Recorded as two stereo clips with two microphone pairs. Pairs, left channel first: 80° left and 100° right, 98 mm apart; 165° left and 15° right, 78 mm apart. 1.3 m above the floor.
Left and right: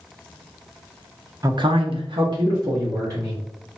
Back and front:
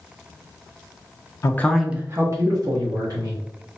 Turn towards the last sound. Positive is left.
turn(degrees=-45)